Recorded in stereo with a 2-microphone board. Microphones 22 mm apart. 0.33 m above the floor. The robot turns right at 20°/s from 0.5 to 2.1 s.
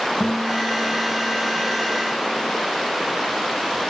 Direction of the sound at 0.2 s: Straight ahead.